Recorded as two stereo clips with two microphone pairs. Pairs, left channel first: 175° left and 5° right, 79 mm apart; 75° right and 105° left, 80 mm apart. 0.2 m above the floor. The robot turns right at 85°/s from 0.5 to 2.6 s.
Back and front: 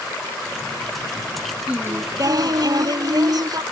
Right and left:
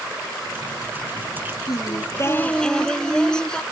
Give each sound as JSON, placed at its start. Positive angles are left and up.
{"t": 1.7, "sound": "singing", "azimuth_deg": -75}